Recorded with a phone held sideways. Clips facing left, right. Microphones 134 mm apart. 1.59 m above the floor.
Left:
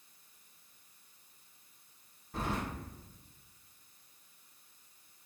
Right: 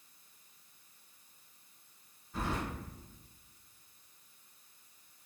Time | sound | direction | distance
2.3 | keys jangling | 60° left (ahead or behind) | 1.3 m